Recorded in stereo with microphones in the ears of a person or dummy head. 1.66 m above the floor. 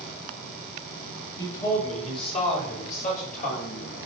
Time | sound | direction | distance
1.4 | a man speaking | 25° left (ahead or behind) | 6 m